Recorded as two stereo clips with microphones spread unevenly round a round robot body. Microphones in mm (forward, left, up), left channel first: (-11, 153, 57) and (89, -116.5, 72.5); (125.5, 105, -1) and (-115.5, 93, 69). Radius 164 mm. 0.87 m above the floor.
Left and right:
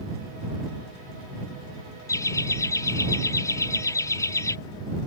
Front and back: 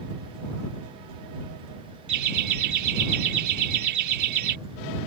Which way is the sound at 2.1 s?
170° right.